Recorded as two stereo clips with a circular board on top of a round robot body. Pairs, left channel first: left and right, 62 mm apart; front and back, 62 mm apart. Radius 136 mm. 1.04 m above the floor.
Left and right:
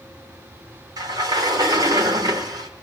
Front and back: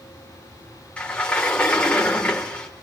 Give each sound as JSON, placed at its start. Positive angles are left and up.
{"t": 1.0, "sound": "a sliding door", "azimuth_deg": -70, "distance_m": 0.8}